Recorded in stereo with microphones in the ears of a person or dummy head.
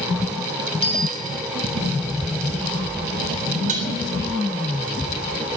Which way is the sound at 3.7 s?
40° right (ahead or behind).